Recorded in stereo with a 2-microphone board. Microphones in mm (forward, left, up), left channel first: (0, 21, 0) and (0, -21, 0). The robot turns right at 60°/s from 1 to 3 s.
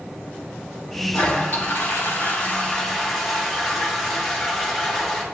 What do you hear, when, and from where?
1.1 s a toilet flushing: 65° left, 3 m; by 5.2 s 175° left, 3 m